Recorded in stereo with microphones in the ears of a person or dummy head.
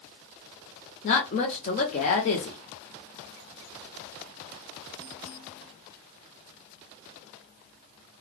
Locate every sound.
1.0 s a woman speaking: 35° left (ahead or behind), 0.8 m